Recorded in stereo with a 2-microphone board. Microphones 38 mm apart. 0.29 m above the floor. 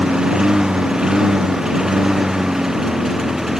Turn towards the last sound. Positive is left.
turn(degrees=-10)  # may be behind; listen again after turning